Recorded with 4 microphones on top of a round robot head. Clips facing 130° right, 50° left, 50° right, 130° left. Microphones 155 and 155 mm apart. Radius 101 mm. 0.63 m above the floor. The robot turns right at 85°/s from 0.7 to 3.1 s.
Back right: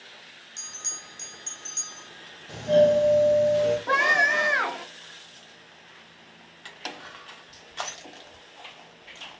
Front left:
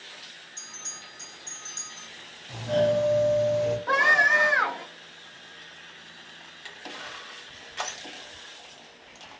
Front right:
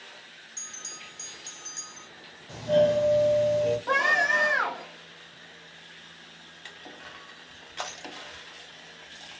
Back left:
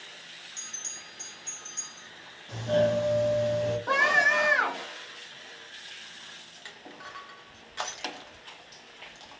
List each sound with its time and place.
0.6 s a bell: 155° right, 1.1 m; by 2.1 s 35° right, 1.1 m
2.5 s a doorbell: 125° right, 1.0 m; by 3.8 s 75° right, 1.0 m
3.9 s a scream: 145° right, 0.9 m
6.7 s crushing: 15° right, 0.9 m